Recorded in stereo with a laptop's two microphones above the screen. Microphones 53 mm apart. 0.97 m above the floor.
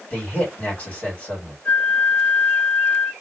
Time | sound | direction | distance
0.1 | a man speaking | 25° left (ahead or behind) | 1.5 m
1.6 | a flute | 20° left (ahead or behind) | 0.8 m